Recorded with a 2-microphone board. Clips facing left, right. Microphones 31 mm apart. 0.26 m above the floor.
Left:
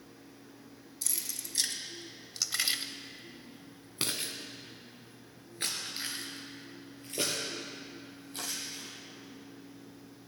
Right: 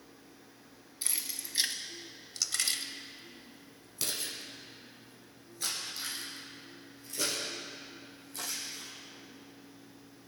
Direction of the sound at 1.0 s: 30° right (ahead or behind).